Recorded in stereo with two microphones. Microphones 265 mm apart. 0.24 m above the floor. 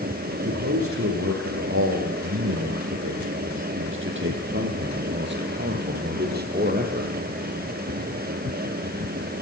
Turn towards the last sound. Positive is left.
turn(degrees=-30)  # may be behind; listen again after turning